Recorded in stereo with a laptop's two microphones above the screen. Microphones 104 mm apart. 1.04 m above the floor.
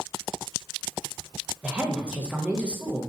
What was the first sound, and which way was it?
A woman speaking, 10° right (ahead or behind).